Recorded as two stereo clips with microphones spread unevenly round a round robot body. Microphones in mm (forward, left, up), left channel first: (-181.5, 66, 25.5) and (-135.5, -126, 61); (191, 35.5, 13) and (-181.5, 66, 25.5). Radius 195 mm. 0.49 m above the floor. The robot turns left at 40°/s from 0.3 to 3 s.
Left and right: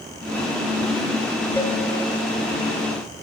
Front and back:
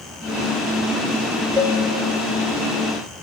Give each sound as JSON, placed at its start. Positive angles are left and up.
{"t": 1.6, "sound": "a cowbell", "azimuth_deg": -175, "distance_m": 1.3}